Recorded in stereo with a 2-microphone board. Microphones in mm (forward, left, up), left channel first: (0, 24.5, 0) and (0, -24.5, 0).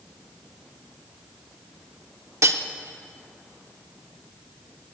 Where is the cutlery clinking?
75° right (ahead or behind), 0.7 m.